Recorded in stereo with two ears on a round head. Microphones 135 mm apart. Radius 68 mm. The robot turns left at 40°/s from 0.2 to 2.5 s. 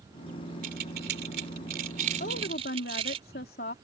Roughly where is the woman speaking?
Left.